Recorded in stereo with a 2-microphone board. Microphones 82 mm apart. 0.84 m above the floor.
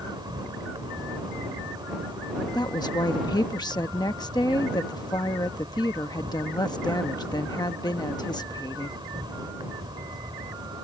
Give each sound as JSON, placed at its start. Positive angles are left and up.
{"t": 0.0, "sound": "an insect", "side_deg": -65}
{"t": 2.5, "sound": "a woman speaking", "side_deg": 55}